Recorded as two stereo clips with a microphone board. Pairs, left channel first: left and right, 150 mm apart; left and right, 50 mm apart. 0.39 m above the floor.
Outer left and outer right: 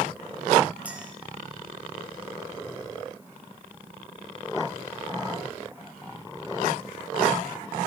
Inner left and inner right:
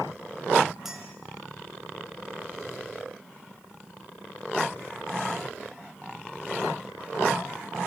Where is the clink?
10° right (ahead or behind), 3.5 m.